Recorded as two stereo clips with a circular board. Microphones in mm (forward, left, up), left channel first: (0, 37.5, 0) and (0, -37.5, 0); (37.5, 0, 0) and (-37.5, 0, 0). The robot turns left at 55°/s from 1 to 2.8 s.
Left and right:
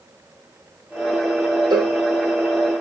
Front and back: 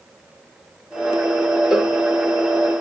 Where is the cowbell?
95° right, 0.8 m; by 2.0 s 110° right, 0.8 m.